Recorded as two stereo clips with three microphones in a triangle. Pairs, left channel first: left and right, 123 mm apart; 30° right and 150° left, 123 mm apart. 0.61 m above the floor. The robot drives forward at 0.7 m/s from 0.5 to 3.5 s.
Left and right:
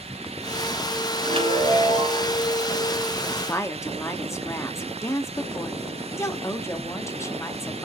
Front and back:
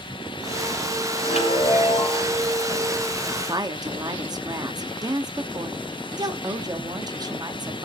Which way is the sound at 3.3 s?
120° left.